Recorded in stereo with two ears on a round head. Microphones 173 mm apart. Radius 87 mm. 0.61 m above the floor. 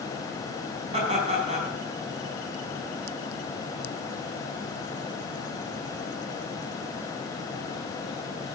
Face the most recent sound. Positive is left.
turn(degrees=-35)  # may be behind; listen again after turning